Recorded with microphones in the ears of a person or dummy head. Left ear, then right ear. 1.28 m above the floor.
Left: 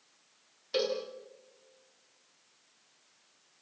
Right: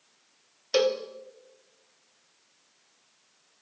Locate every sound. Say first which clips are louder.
0.7 s a cowbell: right 7 dB; 35° right (ahead or behind), 1.5 m